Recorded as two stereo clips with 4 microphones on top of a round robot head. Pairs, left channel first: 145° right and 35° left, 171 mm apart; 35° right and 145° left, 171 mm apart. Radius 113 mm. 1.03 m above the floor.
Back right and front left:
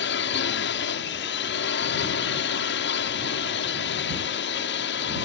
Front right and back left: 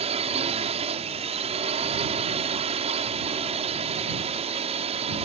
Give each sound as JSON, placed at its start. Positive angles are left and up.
{"t": 0.0, "sound": "a drone", "azimuth_deg": -160}